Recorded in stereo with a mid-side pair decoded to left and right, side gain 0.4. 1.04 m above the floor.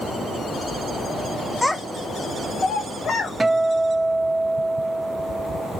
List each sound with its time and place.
1.6 s a child speaking: 5° left, 0.7 m; by 3.3 s 65° left, 1.3 m
3.4 s a guitar: 25° right, 0.5 m